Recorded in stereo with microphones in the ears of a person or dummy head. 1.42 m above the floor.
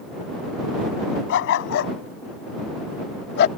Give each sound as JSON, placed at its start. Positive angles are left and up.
{"t": 1.3, "sound": "a dog barking", "side_deg": 75}